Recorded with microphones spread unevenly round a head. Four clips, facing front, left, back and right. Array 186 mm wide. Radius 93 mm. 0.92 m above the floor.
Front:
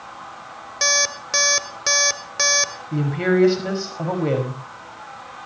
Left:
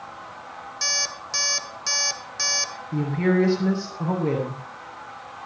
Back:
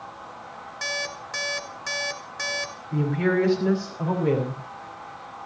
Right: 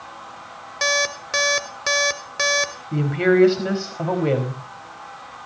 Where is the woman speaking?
55° right, 5 m.